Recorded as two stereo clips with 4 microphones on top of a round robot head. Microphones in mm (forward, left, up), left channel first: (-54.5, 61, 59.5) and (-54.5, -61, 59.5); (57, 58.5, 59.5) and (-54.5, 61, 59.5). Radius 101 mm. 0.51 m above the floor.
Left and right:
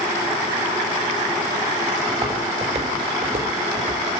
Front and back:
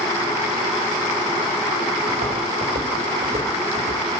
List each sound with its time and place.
2.1 s footsteps: 135° right, 7.5 m; by 4.0 s 125° right, 7.5 m